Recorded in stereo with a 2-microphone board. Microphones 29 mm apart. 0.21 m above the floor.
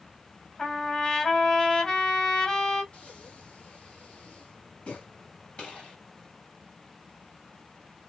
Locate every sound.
0.6 s a trumpet: 25° left (ahead or behind), 1.6 m
2.9 s breathing: 45° left (ahead or behind), 1.8 m
5.6 s a gunshot: 35° left (ahead or behind), 2.5 m